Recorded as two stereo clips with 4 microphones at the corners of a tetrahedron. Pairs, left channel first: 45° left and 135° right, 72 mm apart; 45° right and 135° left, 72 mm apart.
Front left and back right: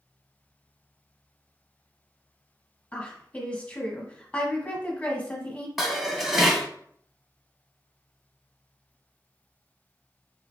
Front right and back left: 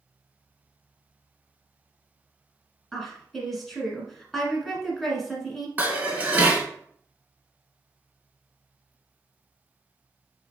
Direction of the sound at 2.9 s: 35° left.